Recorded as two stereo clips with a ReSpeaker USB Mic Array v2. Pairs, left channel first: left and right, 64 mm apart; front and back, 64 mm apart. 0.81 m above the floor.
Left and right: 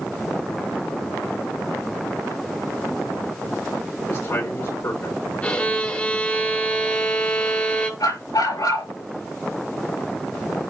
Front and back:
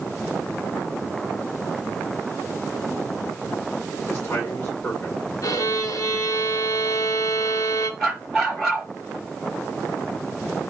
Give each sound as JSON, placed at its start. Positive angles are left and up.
{"t": 4.1, "sound": "a man speaking", "azimuth_deg": 65, "distance_m": 2.0}
{"t": 5.4, "sound": "a violin", "azimuth_deg": 25, "distance_m": 1.8}
{"t": 8.0, "sound": "a dog barking", "azimuth_deg": 85, "distance_m": 5.0}